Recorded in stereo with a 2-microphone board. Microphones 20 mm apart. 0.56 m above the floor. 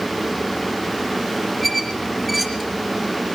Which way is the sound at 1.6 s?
Centre (ahead or behind).